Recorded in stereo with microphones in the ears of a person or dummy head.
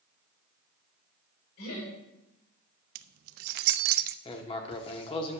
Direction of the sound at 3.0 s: 50° right (ahead or behind).